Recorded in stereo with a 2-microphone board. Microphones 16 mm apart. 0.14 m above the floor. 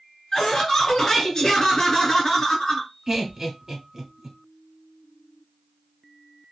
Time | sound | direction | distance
0.3 | laughter | 35° left (ahead or behind) | 1.9 m
3.1 | laughter | 25° right (ahead or behind) | 1.1 m